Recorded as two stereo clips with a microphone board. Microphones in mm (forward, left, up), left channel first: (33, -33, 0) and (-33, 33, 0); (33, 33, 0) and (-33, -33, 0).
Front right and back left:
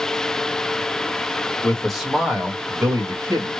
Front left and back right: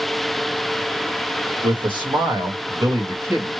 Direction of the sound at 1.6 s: 120° right.